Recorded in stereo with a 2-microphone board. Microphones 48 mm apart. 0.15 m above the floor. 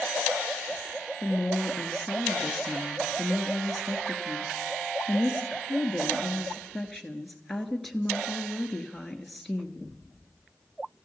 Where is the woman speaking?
5° left (ahead or behind), 1.9 m.